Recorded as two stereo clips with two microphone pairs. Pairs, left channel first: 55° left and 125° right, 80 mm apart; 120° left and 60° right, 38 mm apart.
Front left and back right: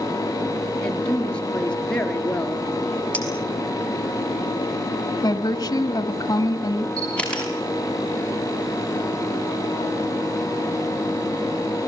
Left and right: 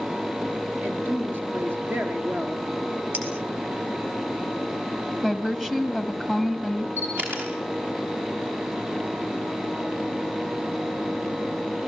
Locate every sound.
0.8 s a woman speaking: 25° right, 4.5 m
3.1 s a clink: 15° right, 6 m
5.2 s a woman speaking: 20° left, 2.0 m
7.0 s a camera shutter: 20° right, 7.5 m